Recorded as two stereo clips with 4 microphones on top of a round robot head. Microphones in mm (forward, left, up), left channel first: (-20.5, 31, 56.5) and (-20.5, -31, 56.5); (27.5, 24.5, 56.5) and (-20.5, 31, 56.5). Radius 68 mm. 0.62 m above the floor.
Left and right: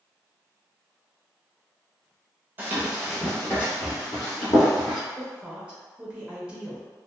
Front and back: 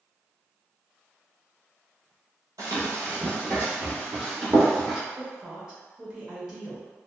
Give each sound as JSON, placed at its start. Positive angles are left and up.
{"t": 2.6, "sound": "running footsteps", "azimuth_deg": -140, "distance_m": 0.7}
{"t": 5.2, "sound": "a woman speaking", "azimuth_deg": -130, "distance_m": 0.9}